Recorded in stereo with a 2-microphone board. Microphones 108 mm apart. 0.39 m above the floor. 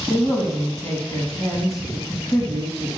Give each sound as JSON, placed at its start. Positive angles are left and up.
{"t": 0.1, "sound": "a man speaking", "side_deg": 30, "distance_m": 2.5}